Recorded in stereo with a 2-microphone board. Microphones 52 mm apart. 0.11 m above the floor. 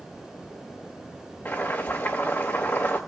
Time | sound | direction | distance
1.4 | boiling | 35° left (ahead or behind) | 4.5 m